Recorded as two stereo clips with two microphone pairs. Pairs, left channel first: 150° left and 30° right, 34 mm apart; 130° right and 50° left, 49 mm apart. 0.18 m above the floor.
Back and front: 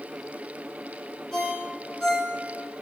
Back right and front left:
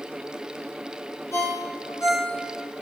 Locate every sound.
1.3 s a ringtone: 135° right, 1.1 m